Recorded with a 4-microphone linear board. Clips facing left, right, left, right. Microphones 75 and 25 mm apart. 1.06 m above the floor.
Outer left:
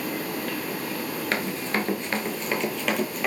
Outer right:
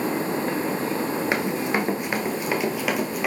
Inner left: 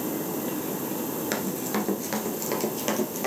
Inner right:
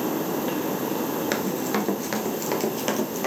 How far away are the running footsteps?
About 1.0 m.